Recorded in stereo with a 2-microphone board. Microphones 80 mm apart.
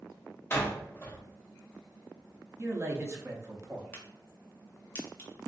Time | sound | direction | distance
0.5 | a door slam | 30° left (ahead or behind) | 0.9 m
2.6 | a man speaking | 35° right (ahead or behind) | 0.7 m
3.9 | a crack | 25° left (ahead or behind) | 1.0 m